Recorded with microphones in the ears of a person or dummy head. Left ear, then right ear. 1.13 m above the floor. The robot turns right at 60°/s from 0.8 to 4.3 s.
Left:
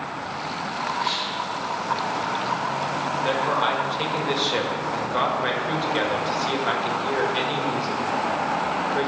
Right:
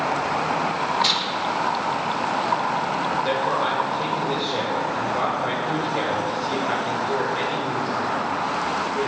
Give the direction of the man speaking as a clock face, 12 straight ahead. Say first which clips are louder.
Left 3 dB; 12 o'clock.